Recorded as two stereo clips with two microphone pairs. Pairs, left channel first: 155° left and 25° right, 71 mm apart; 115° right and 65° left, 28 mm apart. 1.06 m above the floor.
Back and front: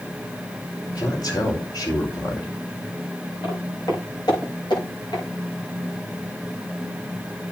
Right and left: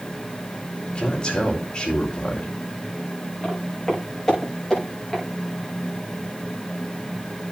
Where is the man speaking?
Straight behind, 4 m.